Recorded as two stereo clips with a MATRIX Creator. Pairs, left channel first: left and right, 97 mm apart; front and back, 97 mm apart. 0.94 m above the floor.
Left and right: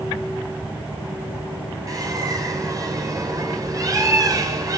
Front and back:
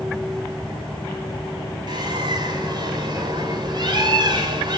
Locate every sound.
1.9 s a bird: 140° right, 4 m